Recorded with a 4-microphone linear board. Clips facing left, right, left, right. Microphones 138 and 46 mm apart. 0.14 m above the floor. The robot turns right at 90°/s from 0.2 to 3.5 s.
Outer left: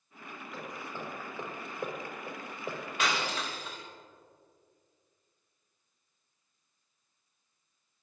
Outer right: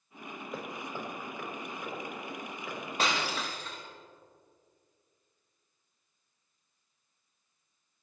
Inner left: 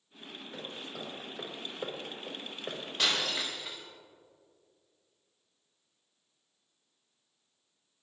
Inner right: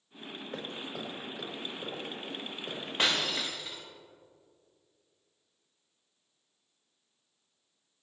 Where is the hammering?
50° right (ahead or behind), 5.5 m; by 2.8 s 30° left (ahead or behind), 5.5 m.